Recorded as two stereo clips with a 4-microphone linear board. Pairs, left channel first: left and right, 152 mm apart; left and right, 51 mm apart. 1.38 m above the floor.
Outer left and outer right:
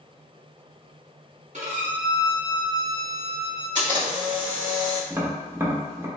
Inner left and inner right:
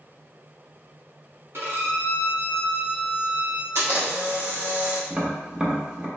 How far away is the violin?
About 1.3 m.